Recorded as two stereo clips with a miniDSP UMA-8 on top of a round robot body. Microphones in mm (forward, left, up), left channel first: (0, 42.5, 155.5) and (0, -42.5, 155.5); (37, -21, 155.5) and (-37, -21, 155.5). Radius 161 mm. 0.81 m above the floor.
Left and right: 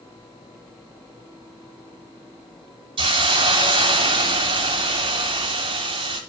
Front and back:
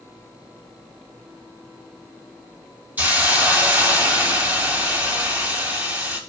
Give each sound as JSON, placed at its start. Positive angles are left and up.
{"t": 3.0, "sound": "a hiss", "azimuth_deg": -110, "distance_m": 1.0}